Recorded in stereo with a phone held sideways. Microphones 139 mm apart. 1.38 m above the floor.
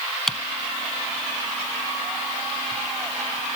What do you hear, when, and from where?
0.3 s typing on a keyboard: 5° left (ahead or behind)